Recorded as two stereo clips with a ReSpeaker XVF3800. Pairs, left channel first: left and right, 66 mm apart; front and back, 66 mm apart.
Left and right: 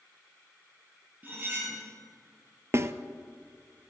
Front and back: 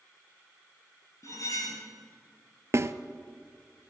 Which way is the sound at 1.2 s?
30° right.